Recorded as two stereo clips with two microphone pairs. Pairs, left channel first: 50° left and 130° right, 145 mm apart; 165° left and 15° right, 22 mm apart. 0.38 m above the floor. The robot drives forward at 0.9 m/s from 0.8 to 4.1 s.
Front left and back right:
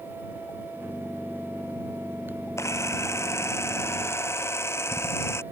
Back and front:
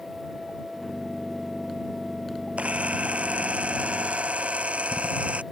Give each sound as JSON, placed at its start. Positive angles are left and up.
{"t": 2.6, "sound": "a camera shutter", "azimuth_deg": -20}